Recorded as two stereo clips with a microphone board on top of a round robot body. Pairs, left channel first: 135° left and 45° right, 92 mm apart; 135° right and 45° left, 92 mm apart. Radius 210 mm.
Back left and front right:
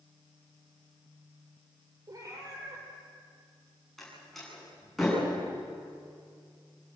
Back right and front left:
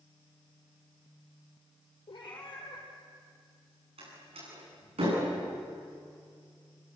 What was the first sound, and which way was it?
A cat meowing, 95° right.